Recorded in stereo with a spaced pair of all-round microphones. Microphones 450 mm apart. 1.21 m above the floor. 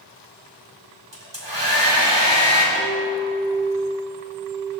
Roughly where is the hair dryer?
Right.